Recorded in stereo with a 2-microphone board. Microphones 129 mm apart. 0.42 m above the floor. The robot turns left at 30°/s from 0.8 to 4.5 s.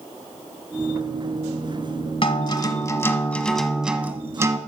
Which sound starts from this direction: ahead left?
A guitar, at 2.2 s.